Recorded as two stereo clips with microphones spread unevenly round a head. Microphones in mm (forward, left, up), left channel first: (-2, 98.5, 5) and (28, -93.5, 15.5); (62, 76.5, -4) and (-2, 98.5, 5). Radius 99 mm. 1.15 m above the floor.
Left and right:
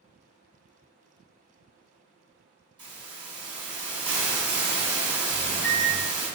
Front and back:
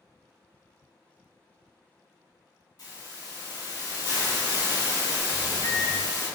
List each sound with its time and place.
2.8 s a hiss: 20° right, 1.3 m
5.3 s a microwave: 10° left, 0.8 m